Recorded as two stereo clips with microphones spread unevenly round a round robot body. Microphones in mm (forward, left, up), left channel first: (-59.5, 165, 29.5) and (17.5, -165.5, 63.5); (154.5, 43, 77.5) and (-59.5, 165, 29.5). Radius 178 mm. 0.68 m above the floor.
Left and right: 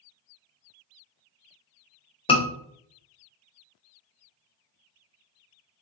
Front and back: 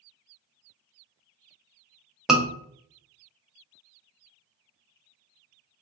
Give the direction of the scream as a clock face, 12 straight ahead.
9 o'clock.